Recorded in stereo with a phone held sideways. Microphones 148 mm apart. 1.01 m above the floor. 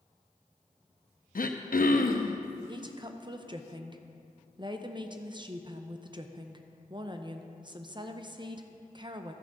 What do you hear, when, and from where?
1.4 s throat clearing: 75° left (ahead or behind), 0.6 m
2.7 s a woman speaking: 30° right (ahead or behind), 0.6 m